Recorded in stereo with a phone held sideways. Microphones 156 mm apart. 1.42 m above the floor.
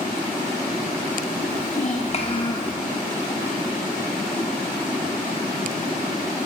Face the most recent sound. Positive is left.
turn(degrees=10)  # may be behind; listen again after turning